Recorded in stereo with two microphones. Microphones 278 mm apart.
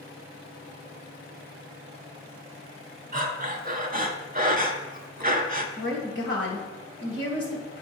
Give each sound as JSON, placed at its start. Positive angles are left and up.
{"t": 3.1, "sound": "breathing", "side_deg": -30, "distance_m": 0.8}
{"t": 5.8, "sound": "a woman speaking", "side_deg": 40, "distance_m": 1.7}